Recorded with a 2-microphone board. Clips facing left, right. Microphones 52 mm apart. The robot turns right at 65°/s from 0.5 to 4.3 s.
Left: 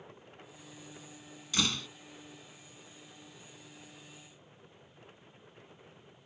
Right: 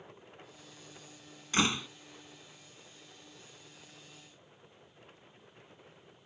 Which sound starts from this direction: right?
A door slam, at 1.5 s.